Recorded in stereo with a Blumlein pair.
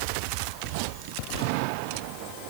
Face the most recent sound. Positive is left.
No sound to turn to.